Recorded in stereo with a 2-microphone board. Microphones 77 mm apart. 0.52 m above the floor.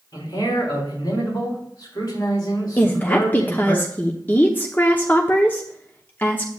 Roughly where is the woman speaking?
Left.